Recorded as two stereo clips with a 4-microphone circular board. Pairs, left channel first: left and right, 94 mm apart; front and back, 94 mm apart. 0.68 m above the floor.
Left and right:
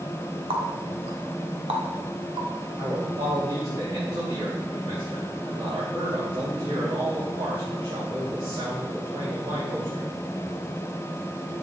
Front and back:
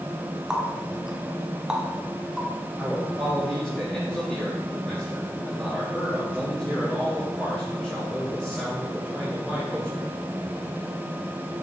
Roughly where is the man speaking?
Right.